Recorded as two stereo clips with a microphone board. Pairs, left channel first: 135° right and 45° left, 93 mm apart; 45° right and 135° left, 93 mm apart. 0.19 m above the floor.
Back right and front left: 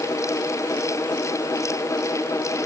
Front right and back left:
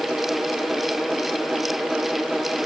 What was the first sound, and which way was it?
Only background noise.